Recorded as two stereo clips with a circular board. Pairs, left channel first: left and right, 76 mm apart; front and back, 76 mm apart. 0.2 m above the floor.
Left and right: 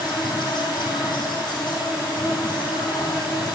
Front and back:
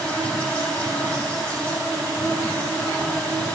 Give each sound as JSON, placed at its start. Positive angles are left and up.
{"t": 0.0, "sound": "an insect", "azimuth_deg": 80, "distance_m": 3.5}